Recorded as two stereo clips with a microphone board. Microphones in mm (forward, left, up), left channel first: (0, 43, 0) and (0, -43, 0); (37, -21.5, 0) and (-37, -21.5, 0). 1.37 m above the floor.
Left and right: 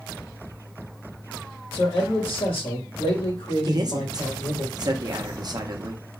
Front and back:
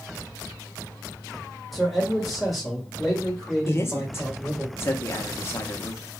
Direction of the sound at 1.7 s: 90° left.